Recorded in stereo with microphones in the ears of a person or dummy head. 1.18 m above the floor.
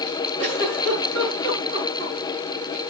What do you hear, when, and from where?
0.4 s a giggle: 50° right (ahead or behind), 8 m